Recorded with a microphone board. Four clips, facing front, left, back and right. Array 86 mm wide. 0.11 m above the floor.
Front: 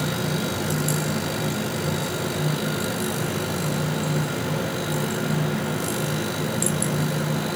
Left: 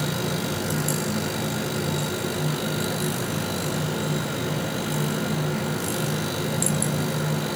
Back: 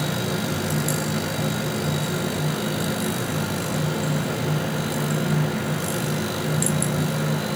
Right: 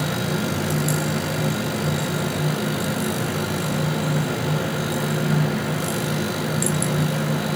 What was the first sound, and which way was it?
Only background noise.